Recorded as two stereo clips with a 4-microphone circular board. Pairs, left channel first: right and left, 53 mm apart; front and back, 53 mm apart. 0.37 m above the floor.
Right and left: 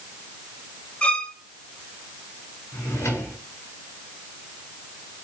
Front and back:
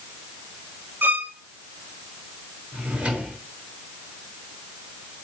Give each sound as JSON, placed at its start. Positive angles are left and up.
{"t": 1.0, "sound": "a violin", "azimuth_deg": -150, "distance_m": 1.1}
{"t": 2.7, "sound": "a drawer", "azimuth_deg": -110, "distance_m": 4.0}